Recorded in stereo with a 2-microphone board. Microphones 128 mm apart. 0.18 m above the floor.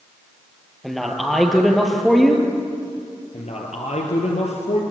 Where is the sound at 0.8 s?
Centre (ahead or behind), 4 m.